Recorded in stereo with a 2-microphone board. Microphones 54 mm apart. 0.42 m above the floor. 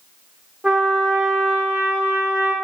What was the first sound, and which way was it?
A trumpet, 20° right (ahead or behind).